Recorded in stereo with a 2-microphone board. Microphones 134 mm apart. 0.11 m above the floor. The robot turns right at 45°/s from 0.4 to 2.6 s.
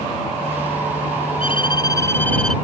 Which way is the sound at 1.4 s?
125° left.